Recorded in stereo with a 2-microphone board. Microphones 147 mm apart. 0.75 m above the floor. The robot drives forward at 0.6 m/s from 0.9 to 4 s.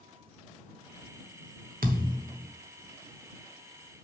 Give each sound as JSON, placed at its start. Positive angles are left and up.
{"t": 1.8, "sound": "a thud", "side_deg": -85, "distance_m": 1.0}